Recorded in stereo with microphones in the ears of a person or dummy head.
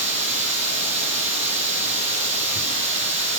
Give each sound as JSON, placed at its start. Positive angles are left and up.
{"t": 0.0, "sound": "running water", "side_deg": -35, "distance_m": 6.0}